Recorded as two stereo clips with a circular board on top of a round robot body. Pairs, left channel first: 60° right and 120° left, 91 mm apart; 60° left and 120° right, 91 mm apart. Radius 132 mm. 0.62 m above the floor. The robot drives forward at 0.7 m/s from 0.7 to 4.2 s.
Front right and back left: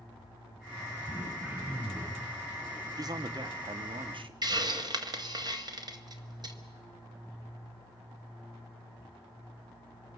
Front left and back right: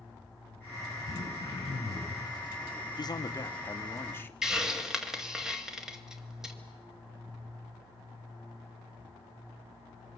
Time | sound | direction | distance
1.1 | throat clearing | 60° left | 6.5 m
3.0 | a man speaking | 85° left | 1.4 m
4.4 | a hiss | 155° left | 1.8 m